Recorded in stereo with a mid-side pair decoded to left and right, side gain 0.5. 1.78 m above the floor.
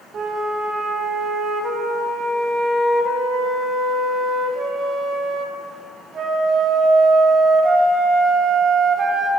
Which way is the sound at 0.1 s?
45° right.